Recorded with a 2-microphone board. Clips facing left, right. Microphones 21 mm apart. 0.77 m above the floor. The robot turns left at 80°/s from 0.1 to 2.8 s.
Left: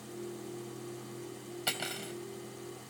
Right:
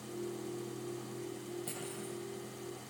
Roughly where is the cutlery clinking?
Left.